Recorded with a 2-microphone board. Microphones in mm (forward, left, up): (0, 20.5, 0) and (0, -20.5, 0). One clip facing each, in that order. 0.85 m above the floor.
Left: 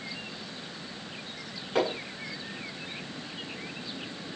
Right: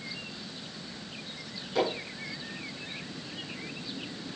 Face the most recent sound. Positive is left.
turn(degrees=40)  # may be behind; listen again after turning